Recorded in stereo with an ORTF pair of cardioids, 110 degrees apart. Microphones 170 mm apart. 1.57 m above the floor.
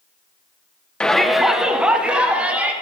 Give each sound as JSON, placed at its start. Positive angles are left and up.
{"t": 1.0, "sound": "a shout", "azimuth_deg": 5, "distance_m": 1.2}